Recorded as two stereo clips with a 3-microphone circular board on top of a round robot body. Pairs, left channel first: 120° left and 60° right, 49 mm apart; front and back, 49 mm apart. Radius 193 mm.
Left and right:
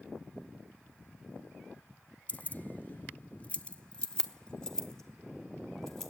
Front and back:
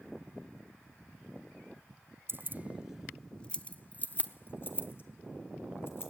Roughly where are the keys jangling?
Behind.